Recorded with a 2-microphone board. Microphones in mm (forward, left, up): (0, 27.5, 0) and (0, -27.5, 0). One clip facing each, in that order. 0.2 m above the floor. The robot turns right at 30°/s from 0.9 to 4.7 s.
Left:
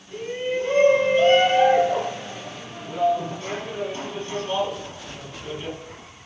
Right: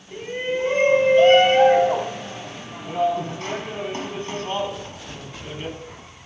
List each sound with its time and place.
0.1 s a shout: 145° right, 5 m; by 5.8 s 30° right, 5 m